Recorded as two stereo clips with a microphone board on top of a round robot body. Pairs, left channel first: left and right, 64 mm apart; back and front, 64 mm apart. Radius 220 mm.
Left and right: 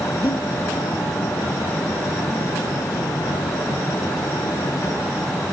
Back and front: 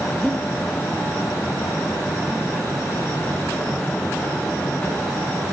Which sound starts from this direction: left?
Breathing, at 0.2 s.